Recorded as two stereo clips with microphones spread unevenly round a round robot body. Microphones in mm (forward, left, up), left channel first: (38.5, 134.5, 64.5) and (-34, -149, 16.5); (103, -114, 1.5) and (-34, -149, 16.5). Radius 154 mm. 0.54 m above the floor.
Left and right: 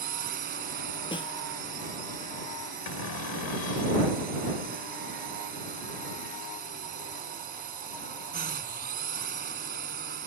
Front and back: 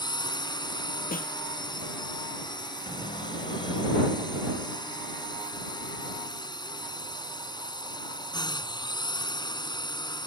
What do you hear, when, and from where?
0.0 s a drone: 45° right
1.1 s a snare drum: straight ahead
2.9 s a cupboard door: 80° left